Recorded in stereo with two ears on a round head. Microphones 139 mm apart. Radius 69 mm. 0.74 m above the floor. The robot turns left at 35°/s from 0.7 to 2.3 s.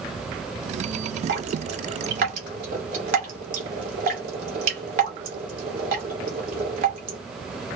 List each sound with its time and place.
1.3 s dripping: 70° right (ahead or behind), 2.5 m; by 7.2 s 55° right (ahead or behind), 2.5 m